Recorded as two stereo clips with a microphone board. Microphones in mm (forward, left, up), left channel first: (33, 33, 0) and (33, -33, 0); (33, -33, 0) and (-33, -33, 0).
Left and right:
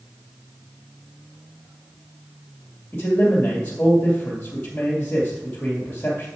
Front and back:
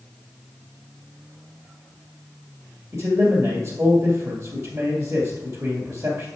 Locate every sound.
2.9 s a man speaking: 150° left, 2.0 m